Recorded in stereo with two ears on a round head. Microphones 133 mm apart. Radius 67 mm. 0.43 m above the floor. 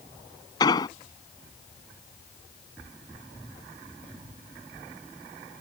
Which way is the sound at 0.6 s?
30° left (ahead or behind).